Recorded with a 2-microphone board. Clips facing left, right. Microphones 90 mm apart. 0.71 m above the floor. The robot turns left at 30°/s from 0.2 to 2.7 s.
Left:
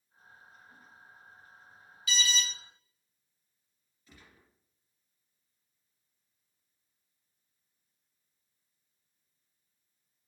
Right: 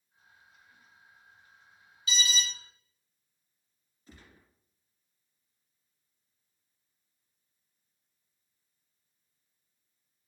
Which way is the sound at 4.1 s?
35° right (ahead or behind).